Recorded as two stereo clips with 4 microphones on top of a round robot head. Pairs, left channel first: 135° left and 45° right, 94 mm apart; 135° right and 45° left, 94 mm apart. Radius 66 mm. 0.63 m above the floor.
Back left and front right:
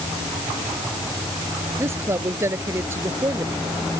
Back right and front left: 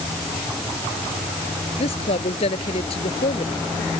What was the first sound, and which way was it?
A woman speaking, 110° right.